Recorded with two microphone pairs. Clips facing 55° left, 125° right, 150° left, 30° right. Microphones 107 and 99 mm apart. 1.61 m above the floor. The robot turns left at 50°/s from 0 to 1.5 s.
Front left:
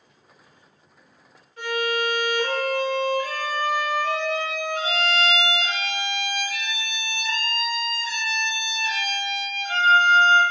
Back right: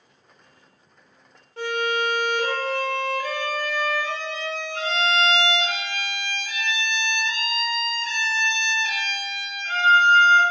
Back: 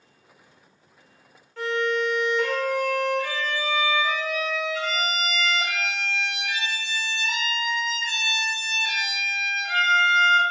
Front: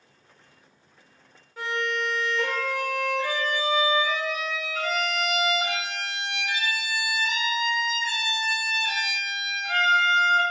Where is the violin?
110° right, 1.3 m.